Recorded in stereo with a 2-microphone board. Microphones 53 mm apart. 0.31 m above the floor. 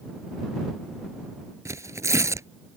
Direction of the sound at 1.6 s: 75° right (ahead or behind).